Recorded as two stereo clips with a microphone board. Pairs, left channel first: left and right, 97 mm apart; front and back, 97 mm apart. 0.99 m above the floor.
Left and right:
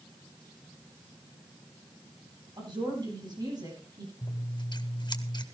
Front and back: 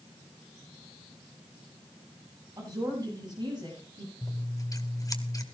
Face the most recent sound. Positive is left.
turn(degrees=50)